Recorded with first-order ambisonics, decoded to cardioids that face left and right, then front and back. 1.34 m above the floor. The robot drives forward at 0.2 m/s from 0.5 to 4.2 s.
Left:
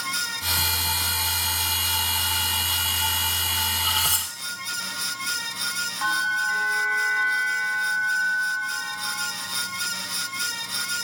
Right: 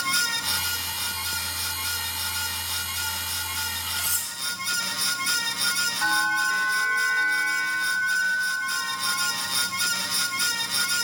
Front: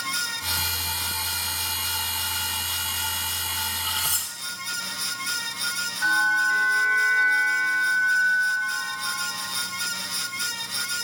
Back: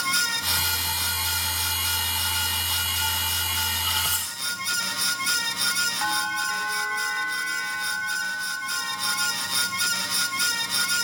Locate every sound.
4.0 s cutlery clinking: 100° left, 4 m
6.0 s a bell: 150° left, 5 m